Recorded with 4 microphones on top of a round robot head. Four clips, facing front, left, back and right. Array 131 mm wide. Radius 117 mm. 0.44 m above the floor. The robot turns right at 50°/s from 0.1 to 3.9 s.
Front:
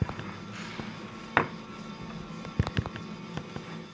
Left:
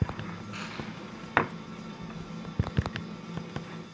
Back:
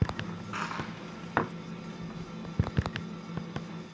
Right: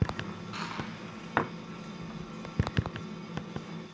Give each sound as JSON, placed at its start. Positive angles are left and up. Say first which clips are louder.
{"t": 0.5, "sound": "crushing", "louder": "right 4 dB, back 8 dB", "azimuth_deg": -160, "distance_m": 1.3}